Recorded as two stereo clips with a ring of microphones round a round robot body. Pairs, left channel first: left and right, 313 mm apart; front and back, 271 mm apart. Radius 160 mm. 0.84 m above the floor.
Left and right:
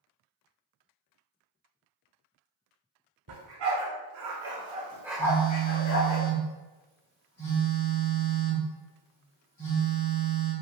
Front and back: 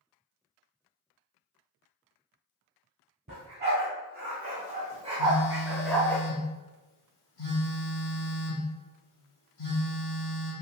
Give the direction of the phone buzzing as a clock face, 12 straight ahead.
11 o'clock.